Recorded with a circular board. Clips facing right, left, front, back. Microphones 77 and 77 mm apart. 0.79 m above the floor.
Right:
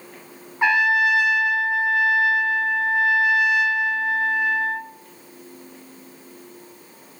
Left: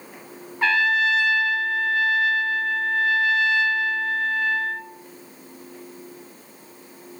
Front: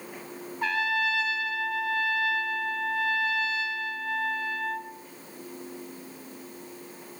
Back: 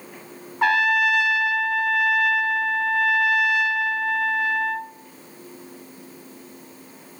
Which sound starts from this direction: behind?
A trumpet, at 0.6 s.